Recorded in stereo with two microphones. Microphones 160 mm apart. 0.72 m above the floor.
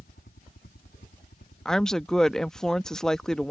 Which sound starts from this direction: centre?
A woman speaking, at 1.6 s.